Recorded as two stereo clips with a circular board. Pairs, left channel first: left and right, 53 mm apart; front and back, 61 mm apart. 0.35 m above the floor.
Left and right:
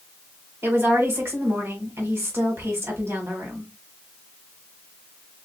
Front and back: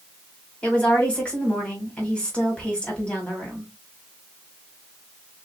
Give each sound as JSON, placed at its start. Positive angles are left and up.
{"t": 0.6, "sound": "a woman speaking", "azimuth_deg": -70, "distance_m": 1.8}